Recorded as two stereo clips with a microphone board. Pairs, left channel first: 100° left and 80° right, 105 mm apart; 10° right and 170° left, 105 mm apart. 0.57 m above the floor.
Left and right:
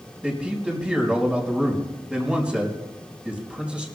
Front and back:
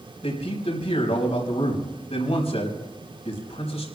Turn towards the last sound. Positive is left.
turn(degrees=0)